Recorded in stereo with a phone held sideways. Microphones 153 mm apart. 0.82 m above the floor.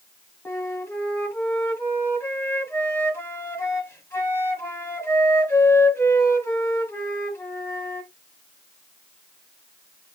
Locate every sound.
0.5 s a flute: 15° left (ahead or behind), 1.3 m